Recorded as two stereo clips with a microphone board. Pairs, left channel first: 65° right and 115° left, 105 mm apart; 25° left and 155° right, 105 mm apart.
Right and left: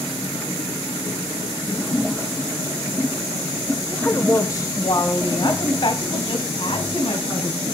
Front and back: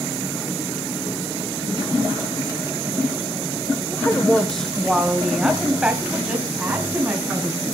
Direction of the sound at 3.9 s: 10° right.